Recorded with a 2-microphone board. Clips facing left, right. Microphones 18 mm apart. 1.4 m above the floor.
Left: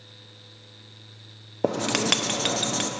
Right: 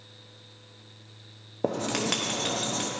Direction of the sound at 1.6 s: 30° left (ahead or behind).